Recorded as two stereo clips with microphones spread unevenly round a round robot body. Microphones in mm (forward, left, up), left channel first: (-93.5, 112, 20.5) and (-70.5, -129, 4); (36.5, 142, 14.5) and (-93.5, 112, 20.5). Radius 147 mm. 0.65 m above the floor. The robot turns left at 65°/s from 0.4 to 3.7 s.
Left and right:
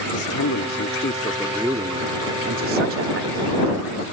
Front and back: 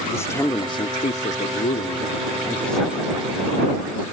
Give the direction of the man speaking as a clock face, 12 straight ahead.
9 o'clock.